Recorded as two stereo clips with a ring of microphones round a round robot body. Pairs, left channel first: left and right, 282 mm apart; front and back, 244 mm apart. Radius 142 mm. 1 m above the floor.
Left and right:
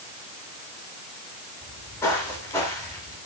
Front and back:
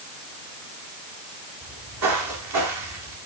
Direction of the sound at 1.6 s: 170° left.